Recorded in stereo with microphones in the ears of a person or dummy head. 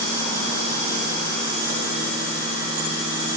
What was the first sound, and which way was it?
Only background noise.